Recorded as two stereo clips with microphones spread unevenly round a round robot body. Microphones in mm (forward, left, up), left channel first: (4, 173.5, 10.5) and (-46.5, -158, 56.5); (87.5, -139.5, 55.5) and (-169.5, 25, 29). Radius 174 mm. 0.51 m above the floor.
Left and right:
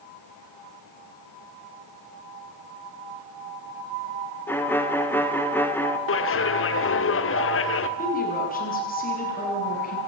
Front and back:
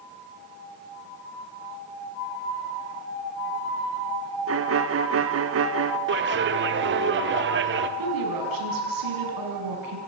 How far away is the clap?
About 1.5 m.